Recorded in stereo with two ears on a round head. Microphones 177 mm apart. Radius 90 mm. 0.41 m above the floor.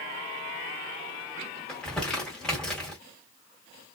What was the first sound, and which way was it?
Crumpling, 5° left (ahead or behind).